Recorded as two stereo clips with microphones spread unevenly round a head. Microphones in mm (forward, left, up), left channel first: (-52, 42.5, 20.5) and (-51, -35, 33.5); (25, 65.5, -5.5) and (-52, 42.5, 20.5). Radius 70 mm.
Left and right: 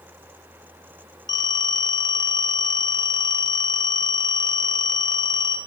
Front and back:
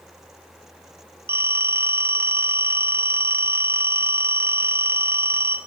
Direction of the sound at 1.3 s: 135° left.